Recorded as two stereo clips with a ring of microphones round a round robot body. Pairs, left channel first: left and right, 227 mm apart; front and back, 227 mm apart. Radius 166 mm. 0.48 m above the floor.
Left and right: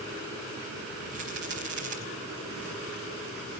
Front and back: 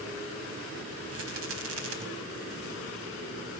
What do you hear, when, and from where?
1.1 s a rattle: 140° right, 4.5 m